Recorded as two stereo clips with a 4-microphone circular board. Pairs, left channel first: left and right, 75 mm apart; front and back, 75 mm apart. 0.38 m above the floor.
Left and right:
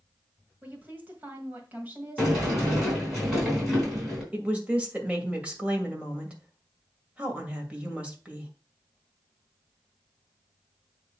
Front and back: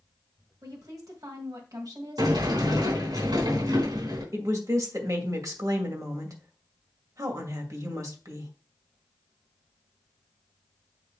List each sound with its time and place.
0.6 s a woman speaking: 155° right, 1.7 m
2.2 s a sliding door: straight behind, 4 m
4.3 s a woman speaking: 160° right, 2 m